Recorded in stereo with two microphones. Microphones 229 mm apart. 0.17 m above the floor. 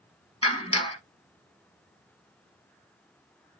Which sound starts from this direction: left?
A clap, at 0.4 s.